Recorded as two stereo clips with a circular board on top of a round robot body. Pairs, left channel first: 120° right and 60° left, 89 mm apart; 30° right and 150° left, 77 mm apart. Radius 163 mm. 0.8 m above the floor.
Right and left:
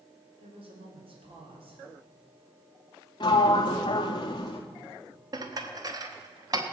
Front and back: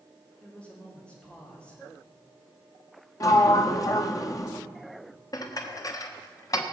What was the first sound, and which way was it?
A woman speaking, 50° left.